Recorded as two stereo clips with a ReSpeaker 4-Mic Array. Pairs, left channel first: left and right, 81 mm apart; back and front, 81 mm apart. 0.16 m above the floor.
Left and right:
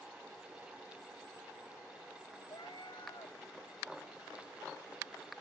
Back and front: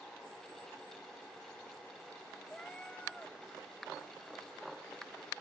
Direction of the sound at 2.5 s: 105° left.